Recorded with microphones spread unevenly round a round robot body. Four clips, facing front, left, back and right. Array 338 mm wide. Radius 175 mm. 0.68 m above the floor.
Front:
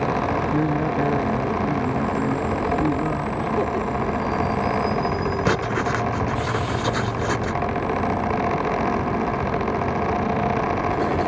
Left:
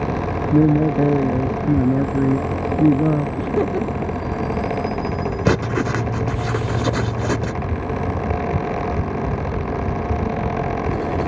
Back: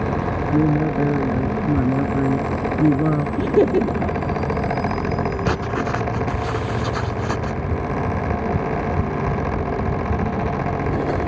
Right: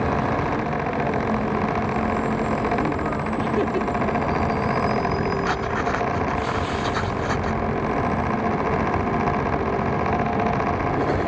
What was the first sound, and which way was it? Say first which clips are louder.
A man speaking: left 8 dB, back 3 dB; 110° left.